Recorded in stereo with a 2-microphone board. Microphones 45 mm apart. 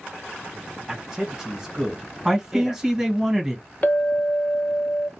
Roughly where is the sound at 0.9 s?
Centre.